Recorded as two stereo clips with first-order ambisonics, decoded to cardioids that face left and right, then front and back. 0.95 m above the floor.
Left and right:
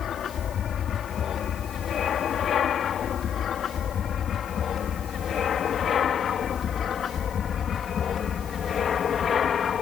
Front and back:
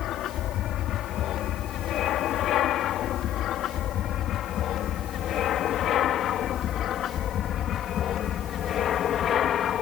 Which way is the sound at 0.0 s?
40° left.